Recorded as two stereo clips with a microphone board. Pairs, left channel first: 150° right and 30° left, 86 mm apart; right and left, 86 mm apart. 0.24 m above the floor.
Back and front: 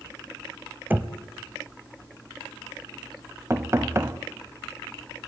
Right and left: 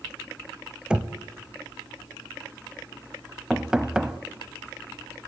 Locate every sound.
0.9 s knocking: 30° left, 0.8 m
3.5 s knocking: 15° left, 0.7 m